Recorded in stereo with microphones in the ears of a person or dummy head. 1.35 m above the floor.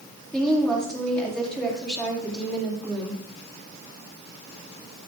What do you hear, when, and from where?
0.3 s a woman speaking: 10° left (ahead or behind), 3 m